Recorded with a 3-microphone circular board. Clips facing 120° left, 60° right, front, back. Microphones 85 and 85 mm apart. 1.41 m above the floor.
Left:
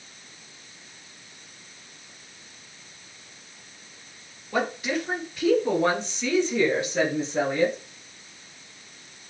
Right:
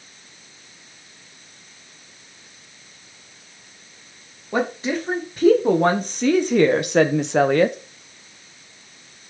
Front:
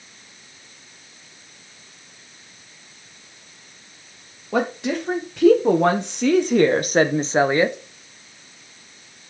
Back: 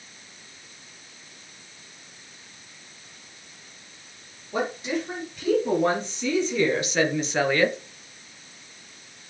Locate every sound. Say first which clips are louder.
4.5 s a woman speaking: right 3 dB, front 5 dB; straight ahead, 1.9 m; by 7.8 s 75° right, 1.0 m